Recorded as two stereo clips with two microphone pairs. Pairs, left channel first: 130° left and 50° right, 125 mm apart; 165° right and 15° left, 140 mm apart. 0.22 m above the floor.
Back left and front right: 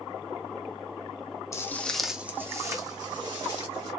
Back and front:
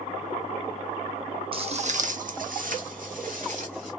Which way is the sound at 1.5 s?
60° left.